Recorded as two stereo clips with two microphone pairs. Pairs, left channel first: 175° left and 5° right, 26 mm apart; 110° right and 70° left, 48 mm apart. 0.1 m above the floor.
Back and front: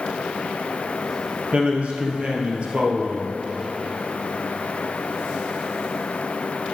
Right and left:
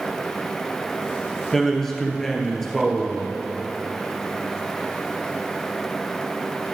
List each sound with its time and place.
1.5 s a man speaking: 25° right, 1.7 m